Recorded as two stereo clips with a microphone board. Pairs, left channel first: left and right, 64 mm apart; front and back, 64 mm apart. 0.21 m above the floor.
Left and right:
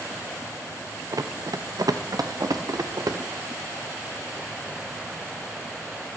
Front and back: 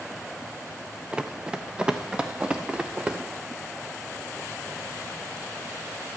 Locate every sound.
1.1 s running footsteps: 105° right, 0.9 m; by 3.2 s 110° right, 2.0 m